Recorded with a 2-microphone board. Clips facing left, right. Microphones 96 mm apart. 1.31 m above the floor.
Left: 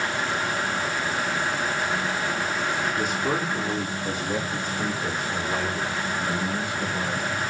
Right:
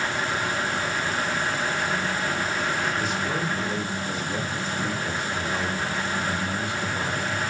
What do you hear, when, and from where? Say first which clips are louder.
3.0 s a man speaking: left 1 dB; 55° left (ahead or behind), 3.5 m; by 7.5 s 85° left, 5.5 m